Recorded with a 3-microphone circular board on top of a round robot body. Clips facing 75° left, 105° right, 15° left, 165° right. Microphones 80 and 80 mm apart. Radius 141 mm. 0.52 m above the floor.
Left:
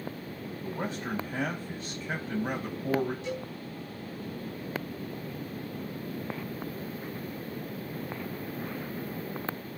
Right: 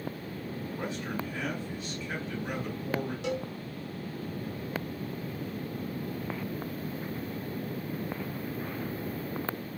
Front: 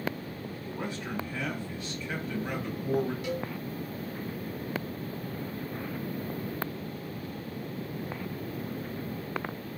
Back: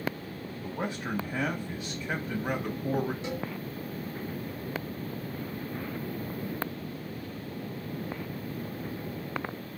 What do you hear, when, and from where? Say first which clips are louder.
0.6 s a man speaking: left 3 dB, back 3 dB; 135° left, 4 m
3.2 s a cowbell: right 3 dB, front 1 dB; 100° right, 4 m